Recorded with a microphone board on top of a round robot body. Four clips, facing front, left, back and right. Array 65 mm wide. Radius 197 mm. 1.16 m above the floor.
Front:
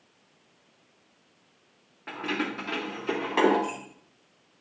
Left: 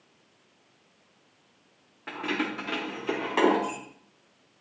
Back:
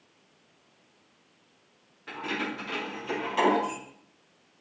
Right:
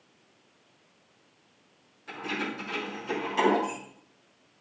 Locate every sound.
2.1 s keys jangling: 55° left, 2.5 m; by 3.8 s 35° left, 3 m